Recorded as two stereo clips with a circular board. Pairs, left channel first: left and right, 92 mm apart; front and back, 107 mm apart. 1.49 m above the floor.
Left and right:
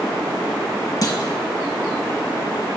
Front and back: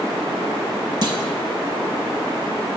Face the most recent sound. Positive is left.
turn(degrees=135)